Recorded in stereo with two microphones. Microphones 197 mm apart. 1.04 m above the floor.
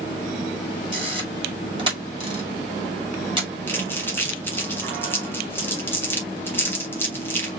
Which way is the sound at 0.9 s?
25° right (ahead or behind).